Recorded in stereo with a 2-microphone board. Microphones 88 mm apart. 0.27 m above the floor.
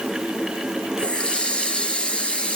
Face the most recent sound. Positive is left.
turn(degrees=10)  # may be behind; listen again after turning